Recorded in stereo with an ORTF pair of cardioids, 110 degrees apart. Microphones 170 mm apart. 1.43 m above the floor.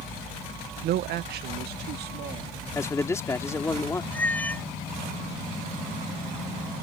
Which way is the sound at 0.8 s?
70° right.